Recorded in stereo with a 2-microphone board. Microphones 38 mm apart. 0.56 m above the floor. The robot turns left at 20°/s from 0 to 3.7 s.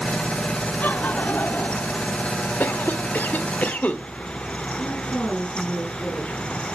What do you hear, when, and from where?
0.8 s laughter: 50° left (ahead or behind), 1.0 m
2.6 s a cough: 60° left (ahead or behind), 1.4 m; by 4.0 s 45° left (ahead or behind), 1.4 m
4.8 s a woman speaking: 45° left (ahead or behind), 7 m